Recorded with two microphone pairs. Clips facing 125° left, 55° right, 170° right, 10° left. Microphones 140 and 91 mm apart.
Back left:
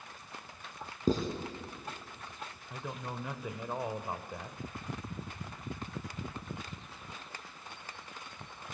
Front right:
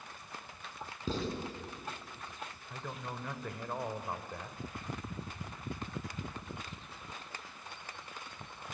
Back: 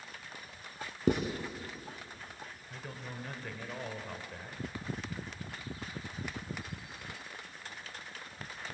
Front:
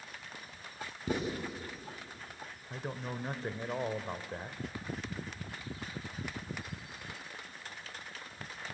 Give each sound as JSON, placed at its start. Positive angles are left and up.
{"t": 1.1, "sound": "writing", "azimuth_deg": 170, "distance_m": 3.0}
{"t": 2.7, "sound": "a man speaking", "azimuth_deg": 50, "distance_m": 1.1}